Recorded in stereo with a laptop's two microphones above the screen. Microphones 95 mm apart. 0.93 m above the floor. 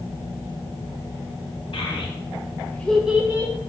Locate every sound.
1.7 s a child speaking: 65° left (ahead or behind), 1.1 m; by 3.5 s 30° right (ahead or behind), 0.8 m